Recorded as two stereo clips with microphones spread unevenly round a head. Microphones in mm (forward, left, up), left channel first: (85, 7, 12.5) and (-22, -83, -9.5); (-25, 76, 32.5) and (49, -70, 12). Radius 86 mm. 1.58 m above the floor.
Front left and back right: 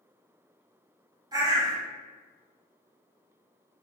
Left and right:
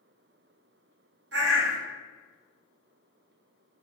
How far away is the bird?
About 0.6 m.